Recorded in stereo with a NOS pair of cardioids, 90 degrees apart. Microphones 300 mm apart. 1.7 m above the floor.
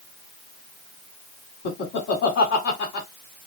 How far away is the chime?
I don't hear a chime.